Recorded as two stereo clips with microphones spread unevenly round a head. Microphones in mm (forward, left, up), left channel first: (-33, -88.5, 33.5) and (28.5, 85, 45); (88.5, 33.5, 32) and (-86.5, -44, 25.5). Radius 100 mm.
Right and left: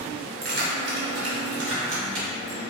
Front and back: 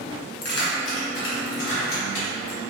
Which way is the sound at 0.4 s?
30° left.